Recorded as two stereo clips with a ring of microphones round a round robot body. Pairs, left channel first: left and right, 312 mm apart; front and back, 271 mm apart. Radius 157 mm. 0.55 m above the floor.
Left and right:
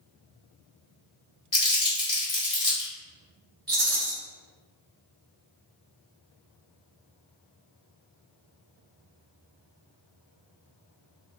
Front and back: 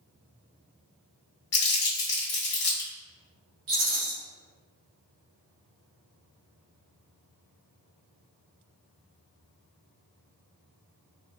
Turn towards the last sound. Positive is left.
turn(degrees=-150)